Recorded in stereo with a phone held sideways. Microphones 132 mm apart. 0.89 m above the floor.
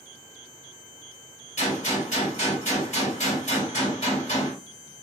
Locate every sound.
1.6 s a gunshot: 65° left (ahead or behind), 3 m